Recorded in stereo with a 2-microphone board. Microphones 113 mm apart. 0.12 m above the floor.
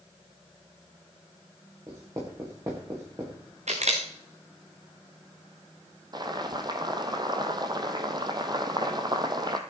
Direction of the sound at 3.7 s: 85° right.